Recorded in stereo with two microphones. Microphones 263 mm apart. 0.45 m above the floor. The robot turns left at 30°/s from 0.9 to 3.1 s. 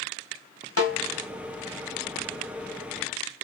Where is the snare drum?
65° left (ahead or behind), 1.7 m.